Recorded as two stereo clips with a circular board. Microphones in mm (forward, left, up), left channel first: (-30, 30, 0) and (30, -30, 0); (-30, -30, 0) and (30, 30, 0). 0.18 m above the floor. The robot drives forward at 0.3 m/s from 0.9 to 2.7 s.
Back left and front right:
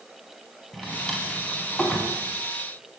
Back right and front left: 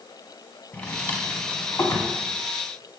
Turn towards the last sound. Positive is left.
turn(degrees=-165)